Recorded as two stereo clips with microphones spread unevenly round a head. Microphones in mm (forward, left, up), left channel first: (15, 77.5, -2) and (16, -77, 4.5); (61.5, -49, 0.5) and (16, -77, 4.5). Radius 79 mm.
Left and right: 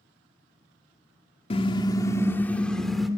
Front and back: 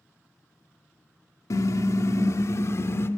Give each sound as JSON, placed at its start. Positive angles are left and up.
{"t": 1.5, "sound": "a car horn", "azimuth_deg": 40, "distance_m": 2.0}